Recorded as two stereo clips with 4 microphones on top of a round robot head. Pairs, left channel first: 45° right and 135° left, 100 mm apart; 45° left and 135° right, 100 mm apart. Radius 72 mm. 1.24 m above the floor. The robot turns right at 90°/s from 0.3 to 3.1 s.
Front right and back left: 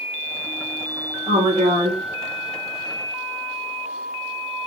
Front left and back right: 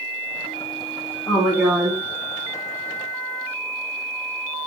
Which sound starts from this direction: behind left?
A woman speaking, at 1.3 s.